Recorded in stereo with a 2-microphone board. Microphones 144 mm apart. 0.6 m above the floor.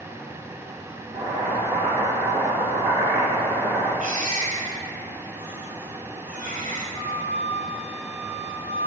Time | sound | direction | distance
1.1 | boiling | 25° right (ahead or behind) | 4.5 m
4.0 | a baby crying | 70° right (ahead or behind) | 2.5 m
7.0 | a flute | 30° left (ahead or behind) | 3 m